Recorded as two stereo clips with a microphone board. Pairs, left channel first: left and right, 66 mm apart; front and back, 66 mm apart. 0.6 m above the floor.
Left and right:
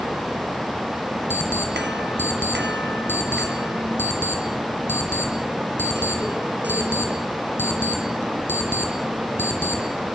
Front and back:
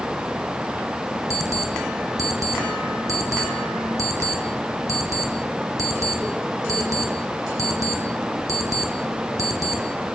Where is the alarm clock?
145° left, 5.5 m.